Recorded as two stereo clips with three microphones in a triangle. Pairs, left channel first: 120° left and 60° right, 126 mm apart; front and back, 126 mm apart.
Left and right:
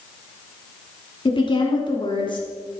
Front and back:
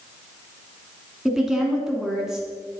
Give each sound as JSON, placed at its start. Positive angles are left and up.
{"t": 1.2, "sound": "a woman speaking", "azimuth_deg": 95, "distance_m": 1.4}